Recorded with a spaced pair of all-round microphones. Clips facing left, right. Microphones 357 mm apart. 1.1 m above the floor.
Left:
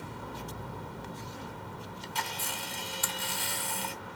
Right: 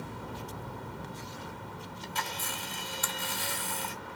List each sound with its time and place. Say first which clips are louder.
2.0 s a camera shutter: right 2 dB; 40° left (ahead or behind), 0.9 m